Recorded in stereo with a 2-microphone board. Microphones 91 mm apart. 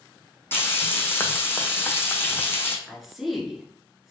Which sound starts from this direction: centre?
A woman speaking, at 2.9 s.